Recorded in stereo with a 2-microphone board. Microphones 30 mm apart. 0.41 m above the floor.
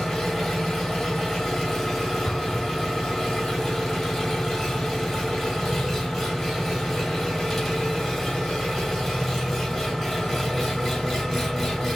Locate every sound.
0.0 s an engine running: centre (ahead or behind), 2 m
2.2 s an explosion: 75° left (ahead or behind), 1.5 m